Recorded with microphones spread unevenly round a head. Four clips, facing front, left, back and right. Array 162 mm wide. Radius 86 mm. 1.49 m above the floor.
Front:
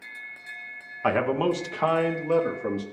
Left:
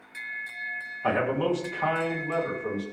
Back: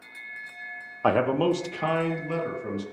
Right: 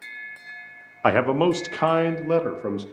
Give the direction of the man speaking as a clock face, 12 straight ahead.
5 o'clock.